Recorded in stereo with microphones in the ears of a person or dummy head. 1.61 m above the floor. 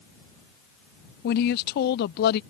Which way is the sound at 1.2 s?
55° left (ahead or behind).